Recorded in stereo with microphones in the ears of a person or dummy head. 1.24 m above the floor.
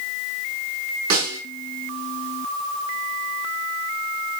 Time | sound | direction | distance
1.1 | a snare drum | 60° right (ahead or behind) | 5.5 m